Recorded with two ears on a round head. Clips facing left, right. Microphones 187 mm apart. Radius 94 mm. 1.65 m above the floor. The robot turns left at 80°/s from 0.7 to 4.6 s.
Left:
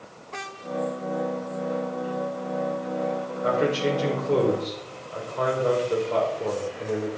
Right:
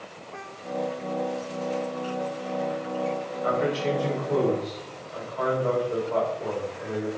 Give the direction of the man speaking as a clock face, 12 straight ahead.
7 o'clock.